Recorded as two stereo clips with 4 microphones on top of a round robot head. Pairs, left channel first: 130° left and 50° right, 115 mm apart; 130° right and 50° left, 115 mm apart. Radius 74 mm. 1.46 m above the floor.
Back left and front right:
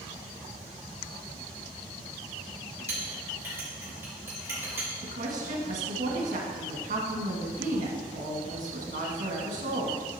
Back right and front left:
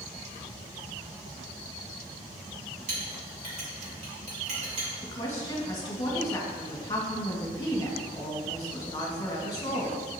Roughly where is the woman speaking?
Right.